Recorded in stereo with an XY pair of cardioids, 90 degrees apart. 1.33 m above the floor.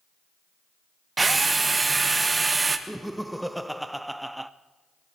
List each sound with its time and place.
1.2 s a drill: 30° right, 1.2 m
2.9 s laughter: 5° right, 0.6 m